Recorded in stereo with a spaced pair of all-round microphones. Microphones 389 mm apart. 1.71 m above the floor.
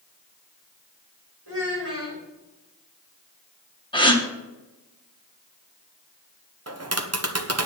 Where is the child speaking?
85° right, 6 m.